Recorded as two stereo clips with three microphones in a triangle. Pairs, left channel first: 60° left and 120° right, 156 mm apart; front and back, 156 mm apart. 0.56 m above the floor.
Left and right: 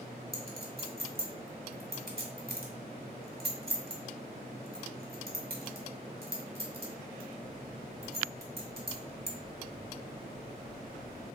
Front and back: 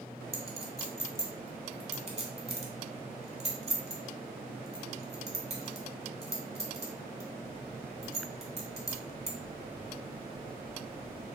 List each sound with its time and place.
0.3 s a clink: 135° right, 1.3 m